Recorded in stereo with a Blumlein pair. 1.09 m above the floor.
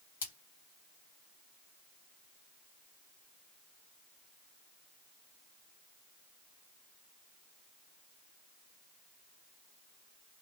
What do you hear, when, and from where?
0.2 s a splash: 60° left, 1.3 m